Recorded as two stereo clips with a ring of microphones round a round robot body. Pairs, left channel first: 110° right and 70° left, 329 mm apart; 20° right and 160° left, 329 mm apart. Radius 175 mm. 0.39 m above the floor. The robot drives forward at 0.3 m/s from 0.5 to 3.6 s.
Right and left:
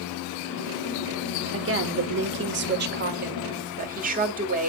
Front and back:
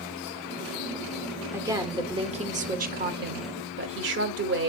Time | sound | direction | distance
1.5 | a woman speaking | 80° left | 1.2 m